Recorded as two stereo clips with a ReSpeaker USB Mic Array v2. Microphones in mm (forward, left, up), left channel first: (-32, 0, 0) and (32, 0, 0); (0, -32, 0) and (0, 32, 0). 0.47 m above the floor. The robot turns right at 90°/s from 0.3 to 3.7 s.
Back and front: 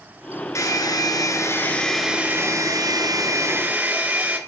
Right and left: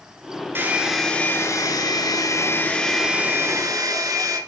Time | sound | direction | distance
0.6 | a hair dryer | 145° left | 2 m